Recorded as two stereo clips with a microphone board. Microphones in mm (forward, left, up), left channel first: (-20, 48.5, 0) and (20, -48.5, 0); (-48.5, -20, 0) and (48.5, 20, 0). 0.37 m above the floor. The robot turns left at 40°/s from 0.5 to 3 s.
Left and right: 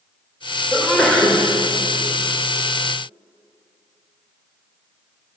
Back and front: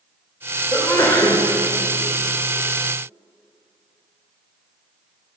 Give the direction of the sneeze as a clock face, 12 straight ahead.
6 o'clock.